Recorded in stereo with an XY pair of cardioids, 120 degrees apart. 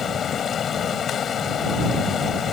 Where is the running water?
45° left.